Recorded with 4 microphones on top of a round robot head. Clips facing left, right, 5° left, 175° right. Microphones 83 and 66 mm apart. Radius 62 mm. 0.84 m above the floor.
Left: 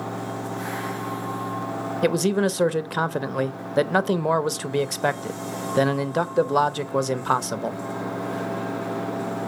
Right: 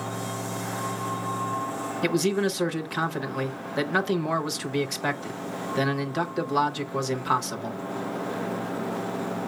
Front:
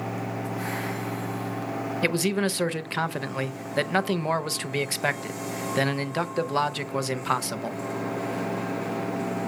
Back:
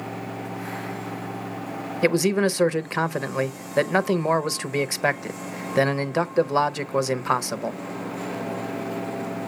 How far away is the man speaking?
About 0.8 m.